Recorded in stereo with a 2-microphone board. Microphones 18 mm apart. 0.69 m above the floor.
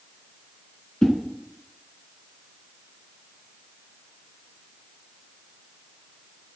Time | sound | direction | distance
1.0 | a whoosh | 35° left (ahead or behind) | 2.5 m